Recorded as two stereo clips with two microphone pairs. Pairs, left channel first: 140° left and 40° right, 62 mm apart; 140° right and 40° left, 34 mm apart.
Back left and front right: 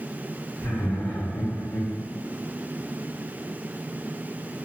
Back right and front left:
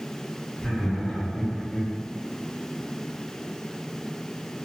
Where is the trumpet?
No trumpet in this recording.